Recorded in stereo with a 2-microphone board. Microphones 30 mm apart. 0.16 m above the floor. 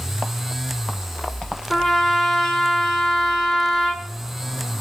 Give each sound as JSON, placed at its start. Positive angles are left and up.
{"t": 1.7, "sound": "a trumpet", "side_deg": 10, "distance_m": 1.3}